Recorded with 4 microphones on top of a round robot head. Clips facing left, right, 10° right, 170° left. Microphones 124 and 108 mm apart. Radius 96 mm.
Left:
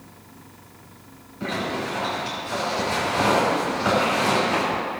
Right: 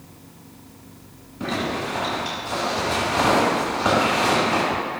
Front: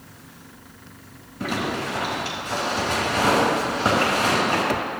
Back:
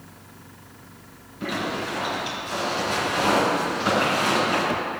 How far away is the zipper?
About 3.5 m.